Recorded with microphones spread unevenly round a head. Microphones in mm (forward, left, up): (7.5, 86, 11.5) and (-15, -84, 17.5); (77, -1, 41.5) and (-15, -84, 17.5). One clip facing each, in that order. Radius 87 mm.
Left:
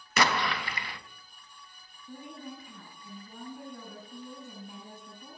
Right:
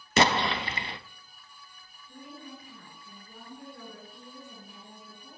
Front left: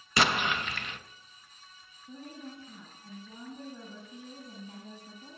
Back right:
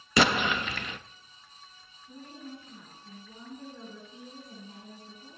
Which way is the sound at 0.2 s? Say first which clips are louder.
Right 4 dB, back right 3 dB; 165° right.